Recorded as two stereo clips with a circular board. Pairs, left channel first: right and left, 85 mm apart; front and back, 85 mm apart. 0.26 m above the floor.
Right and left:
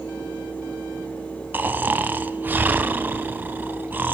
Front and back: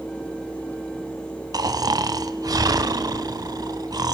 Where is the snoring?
155° left, 0.7 m.